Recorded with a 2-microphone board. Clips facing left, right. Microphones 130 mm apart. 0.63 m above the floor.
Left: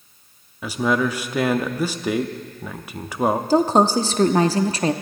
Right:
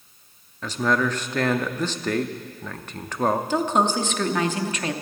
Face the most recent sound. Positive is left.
turn(degrees=35)  # may be behind; listen again after turning